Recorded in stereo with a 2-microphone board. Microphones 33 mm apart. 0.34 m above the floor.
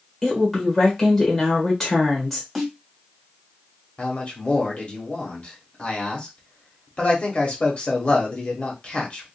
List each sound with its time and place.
0.2 s a woman speaking: 5° left (ahead or behind), 1.3 m
2.5 s a snare drum: 5° left (ahead or behind), 1.6 m
4.0 s a man speaking: 40° left (ahead or behind), 1.2 m